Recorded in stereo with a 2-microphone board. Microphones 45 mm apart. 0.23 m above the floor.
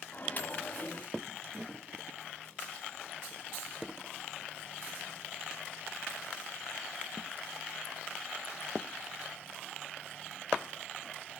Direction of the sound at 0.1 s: 35° left (ahead or behind).